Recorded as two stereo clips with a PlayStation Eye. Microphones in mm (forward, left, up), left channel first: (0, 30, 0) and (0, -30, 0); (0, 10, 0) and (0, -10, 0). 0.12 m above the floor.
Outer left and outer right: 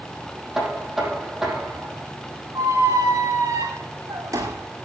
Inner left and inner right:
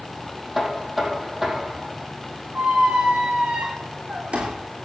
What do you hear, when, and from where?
0.6 s knocking: 5° right (ahead or behind), 4 m
2.5 s a squeak: 65° right (ahead or behind), 3 m